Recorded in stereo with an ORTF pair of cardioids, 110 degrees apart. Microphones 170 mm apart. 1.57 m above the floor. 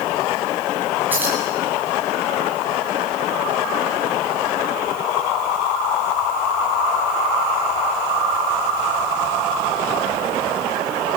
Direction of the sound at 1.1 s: 10° right.